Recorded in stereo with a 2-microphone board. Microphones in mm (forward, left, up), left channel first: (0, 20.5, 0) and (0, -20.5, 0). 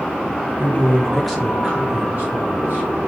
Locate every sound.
0.6 s a man speaking: 40° left (ahead or behind), 0.9 m; by 2.9 s 50° right (ahead or behind), 1.6 m